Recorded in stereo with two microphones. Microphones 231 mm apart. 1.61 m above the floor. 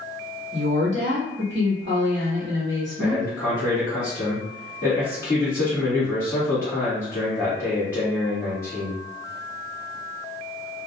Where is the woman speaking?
55° right (ahead or behind), 1.1 m.